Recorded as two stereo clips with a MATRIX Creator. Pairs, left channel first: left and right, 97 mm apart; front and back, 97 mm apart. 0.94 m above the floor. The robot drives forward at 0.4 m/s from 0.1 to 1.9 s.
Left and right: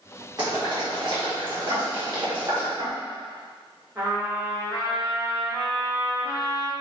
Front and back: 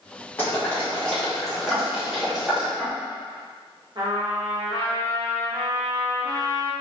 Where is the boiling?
65° right, 1.3 m; by 2.7 s 95° right, 1.3 m.